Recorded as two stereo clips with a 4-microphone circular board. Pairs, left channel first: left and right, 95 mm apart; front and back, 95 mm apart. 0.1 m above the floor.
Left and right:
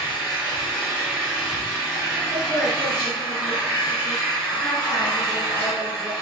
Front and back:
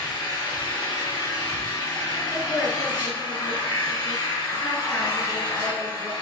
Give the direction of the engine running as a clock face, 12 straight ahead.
1 o'clock.